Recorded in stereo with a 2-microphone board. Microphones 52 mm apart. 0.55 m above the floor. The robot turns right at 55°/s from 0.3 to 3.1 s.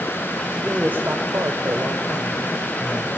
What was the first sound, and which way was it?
A man speaking, 160° right.